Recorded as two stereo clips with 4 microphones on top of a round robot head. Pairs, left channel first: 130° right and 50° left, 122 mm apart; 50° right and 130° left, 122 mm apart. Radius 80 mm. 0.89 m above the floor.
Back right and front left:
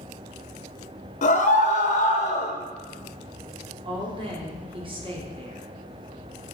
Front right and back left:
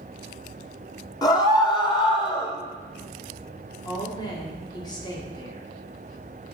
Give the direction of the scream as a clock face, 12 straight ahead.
4 o'clock.